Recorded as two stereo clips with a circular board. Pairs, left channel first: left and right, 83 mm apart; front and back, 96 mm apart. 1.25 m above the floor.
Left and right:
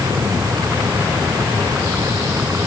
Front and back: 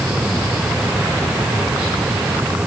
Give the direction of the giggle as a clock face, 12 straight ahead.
No giggle in this recording.